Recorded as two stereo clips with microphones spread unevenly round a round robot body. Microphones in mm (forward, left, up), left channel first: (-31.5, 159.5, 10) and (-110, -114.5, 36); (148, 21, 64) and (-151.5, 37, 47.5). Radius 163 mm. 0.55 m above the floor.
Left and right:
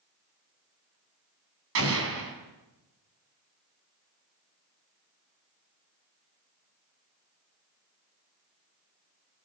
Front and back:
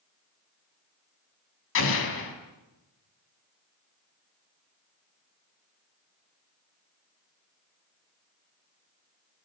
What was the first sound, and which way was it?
An explosion, 55° right.